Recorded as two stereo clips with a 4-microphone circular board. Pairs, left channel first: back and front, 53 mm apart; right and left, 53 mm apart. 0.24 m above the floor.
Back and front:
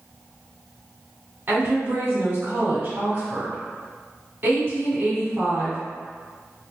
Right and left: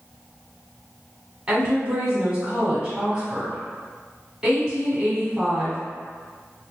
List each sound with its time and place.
1.5 s a woman speaking: 20° left, 1.4 m